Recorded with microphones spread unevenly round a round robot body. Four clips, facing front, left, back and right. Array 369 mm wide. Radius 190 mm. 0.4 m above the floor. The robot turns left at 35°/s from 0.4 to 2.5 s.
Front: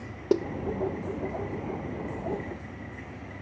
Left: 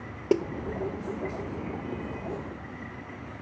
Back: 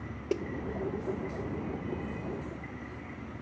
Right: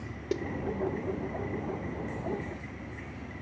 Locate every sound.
0.3 s a snare drum: 50° left, 1.1 m